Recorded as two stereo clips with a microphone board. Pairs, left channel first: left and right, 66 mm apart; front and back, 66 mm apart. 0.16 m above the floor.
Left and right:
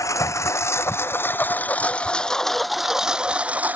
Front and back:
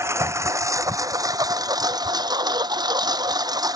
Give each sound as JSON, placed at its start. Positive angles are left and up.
{"t": 0.0, "sound": "a lawn mower", "azimuth_deg": 130}